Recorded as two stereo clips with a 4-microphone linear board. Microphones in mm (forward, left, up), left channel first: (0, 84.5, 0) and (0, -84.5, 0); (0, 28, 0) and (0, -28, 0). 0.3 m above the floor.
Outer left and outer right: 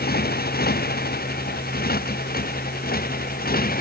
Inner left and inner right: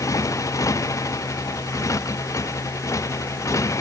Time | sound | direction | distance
0.0 | a motorcycle | 65° left (ahead or behind) | ?